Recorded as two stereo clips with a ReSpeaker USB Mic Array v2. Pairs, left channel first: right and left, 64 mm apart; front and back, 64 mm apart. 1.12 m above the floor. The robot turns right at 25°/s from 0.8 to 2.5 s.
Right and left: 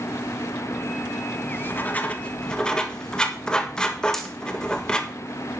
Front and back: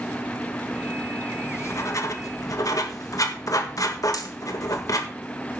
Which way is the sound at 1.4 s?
40° right.